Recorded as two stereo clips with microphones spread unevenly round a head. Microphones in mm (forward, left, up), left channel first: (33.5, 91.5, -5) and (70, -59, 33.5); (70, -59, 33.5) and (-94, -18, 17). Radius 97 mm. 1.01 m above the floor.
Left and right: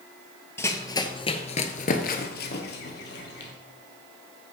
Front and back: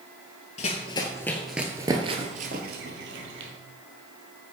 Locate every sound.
0.6 s running footsteps: 20° left, 1.3 m; by 3.5 s 145° left, 1.8 m